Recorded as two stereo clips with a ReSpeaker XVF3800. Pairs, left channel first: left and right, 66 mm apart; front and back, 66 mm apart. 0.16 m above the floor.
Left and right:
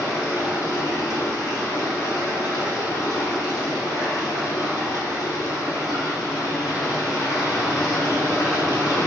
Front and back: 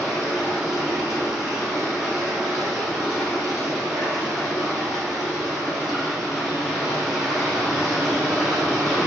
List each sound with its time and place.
0.0 s running water: 95° left, 1.7 m